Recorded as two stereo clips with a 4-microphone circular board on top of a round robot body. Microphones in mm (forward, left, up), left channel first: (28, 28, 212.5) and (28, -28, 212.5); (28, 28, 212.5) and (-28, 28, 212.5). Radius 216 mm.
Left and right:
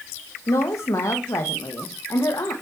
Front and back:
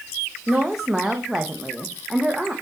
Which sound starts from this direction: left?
A woman speaking, at 0.5 s.